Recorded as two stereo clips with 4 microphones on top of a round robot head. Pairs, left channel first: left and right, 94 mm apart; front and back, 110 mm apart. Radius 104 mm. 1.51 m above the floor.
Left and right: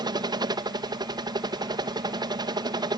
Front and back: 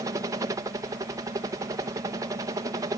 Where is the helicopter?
125° right.